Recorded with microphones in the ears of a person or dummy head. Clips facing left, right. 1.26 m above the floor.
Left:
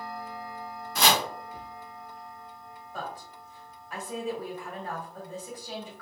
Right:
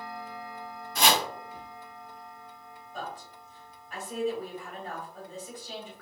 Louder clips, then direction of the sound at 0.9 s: Even; 50° left (ahead or behind).